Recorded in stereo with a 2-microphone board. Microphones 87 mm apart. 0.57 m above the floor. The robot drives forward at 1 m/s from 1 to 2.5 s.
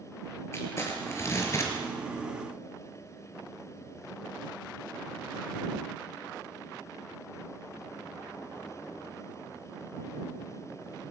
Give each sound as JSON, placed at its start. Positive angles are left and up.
{"t": 0.5, "sound": "crumpling", "side_deg": 30, "distance_m": 5.5}